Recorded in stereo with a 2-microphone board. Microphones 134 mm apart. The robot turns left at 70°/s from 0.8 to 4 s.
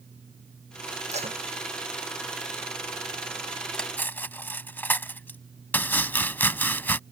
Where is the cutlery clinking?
5° left (ahead or behind); by 5.4 s 15° left (ahead or behind).